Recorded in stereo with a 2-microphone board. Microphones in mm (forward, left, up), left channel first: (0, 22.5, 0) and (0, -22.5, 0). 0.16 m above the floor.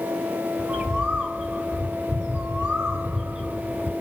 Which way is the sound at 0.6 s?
20° right (ahead or behind).